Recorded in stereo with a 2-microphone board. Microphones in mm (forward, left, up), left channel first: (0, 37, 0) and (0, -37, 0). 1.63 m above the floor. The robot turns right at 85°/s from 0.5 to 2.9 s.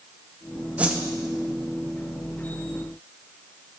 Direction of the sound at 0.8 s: 20° right (ahead or behind).